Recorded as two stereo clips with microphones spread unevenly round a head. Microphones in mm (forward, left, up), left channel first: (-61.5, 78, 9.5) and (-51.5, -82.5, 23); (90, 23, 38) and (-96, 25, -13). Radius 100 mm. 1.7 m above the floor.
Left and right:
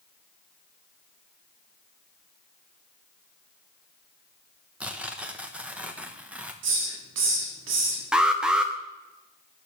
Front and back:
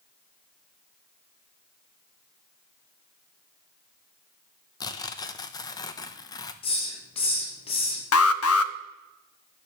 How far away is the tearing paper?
About 0.9 m.